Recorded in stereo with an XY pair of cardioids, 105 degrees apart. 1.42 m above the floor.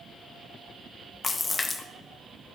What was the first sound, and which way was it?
A splash, 25° left.